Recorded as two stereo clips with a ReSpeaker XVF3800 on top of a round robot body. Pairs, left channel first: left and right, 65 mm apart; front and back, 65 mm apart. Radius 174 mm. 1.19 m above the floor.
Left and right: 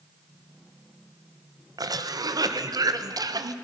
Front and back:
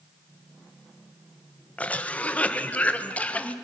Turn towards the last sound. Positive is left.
turn(degrees=-70)